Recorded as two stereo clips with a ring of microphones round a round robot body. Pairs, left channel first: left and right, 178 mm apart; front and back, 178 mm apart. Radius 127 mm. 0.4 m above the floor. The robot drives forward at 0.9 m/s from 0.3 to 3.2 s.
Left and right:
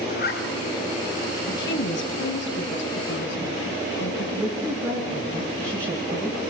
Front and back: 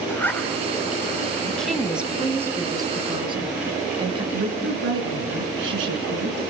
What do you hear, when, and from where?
0.1 s a zipper: 75° left, 3 m; by 0.5 s 80° left, 3 m
1.5 s a woman speaking: 85° left, 2.5 m; by 4.2 s 120° left, 3 m
4.3 s a woman speaking: 170° right, 4.5 m